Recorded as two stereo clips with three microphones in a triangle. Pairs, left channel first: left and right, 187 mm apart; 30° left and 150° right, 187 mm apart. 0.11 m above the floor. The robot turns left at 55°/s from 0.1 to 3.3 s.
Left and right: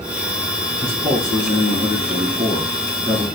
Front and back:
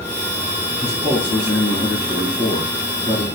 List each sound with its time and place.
0.8 s a man speaking: 20° right, 1.7 m; by 3.2 s 155° right, 1.7 m